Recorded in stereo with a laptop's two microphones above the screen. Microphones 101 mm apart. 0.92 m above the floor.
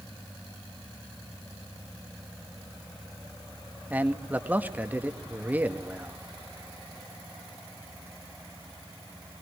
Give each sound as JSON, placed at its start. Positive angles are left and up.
{"t": 3.9, "sound": "a man speaking", "side_deg": -15, "distance_m": 1.6}